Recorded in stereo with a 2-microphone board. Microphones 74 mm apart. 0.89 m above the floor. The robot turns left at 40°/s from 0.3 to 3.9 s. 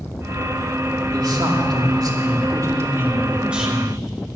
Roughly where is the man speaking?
Right.